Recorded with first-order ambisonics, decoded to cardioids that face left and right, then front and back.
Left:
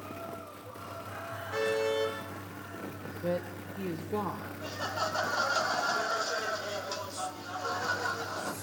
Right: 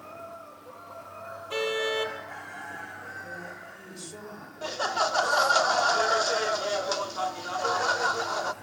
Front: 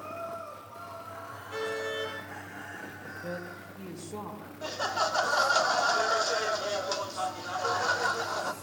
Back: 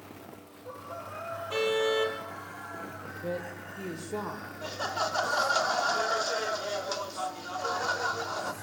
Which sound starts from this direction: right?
Laughter, at 4.6 s.